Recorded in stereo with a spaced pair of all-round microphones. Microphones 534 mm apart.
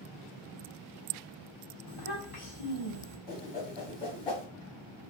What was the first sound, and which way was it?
A child speaking, 70° left (ahead or behind).